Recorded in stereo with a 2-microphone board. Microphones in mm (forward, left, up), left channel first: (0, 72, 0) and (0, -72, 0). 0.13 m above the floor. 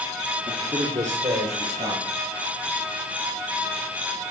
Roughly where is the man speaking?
Right.